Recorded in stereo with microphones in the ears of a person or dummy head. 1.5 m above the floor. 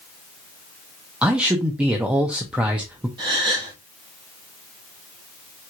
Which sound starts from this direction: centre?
A man speaking, at 1.2 s.